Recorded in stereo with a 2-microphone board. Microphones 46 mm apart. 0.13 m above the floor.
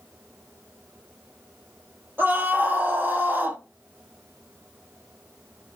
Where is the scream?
50° right (ahead or behind), 2.5 m.